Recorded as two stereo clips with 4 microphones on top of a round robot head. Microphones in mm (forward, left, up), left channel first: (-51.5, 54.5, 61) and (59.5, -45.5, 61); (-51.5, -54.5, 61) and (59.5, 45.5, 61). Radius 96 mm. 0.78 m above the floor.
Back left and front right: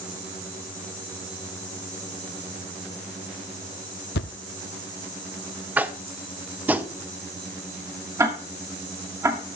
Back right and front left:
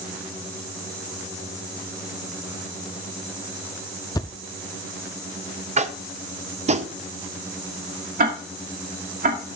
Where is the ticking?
30° left, 2.5 m.